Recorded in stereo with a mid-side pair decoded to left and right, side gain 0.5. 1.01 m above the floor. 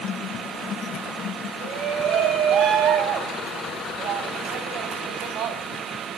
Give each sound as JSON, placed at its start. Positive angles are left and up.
{"t": 1.6, "sound": "a shout", "azimuth_deg": -70, "distance_m": 6.0}